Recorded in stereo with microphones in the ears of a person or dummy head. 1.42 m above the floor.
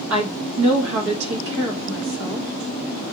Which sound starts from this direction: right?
A woman speaking, at 0.1 s.